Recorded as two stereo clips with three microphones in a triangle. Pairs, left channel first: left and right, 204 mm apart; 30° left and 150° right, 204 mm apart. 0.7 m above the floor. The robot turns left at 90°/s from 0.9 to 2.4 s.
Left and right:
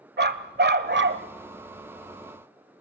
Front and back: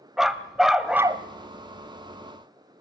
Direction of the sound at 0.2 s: 60° right.